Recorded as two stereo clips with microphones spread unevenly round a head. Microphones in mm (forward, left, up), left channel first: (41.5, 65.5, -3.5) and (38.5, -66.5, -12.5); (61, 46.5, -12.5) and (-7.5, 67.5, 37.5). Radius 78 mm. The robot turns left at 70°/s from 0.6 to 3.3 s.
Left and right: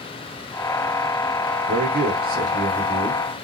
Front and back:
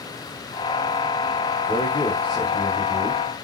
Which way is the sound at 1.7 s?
75° right.